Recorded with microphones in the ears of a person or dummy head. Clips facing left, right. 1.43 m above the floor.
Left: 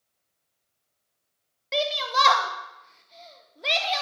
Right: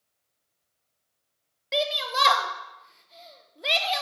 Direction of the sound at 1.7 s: 5° right (ahead or behind).